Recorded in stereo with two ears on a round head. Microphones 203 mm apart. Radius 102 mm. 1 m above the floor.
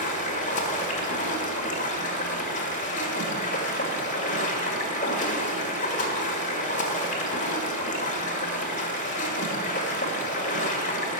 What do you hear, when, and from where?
0.0 s running water: 40° left (ahead or behind), 1.6 m